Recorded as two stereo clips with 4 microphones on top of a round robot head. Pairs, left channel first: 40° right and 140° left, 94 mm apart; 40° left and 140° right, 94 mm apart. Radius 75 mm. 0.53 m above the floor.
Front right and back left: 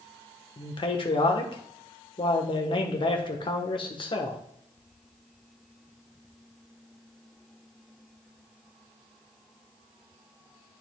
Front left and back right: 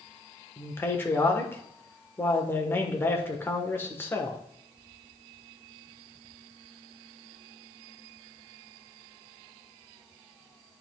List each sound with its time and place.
0.6 s a man speaking: 20° right, 1.8 m